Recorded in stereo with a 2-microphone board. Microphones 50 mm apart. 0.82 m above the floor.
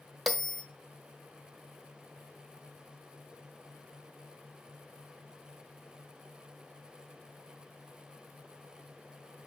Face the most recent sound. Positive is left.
turn(degrees=0)  # may be behind; listen again after turning